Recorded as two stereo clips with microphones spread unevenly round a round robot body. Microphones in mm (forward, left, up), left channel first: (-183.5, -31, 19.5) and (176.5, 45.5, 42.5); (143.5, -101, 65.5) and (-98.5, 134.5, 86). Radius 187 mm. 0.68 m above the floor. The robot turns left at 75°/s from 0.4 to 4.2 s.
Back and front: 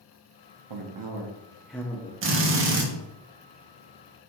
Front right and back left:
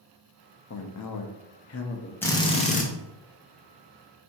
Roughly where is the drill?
Ahead left.